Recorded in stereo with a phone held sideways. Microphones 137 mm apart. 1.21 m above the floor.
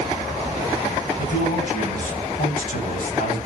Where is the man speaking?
65° left (ahead or behind), 9.5 m.